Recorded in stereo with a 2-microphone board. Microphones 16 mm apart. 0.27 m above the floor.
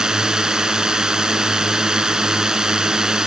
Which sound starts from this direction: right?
A drone, at 0.0 s.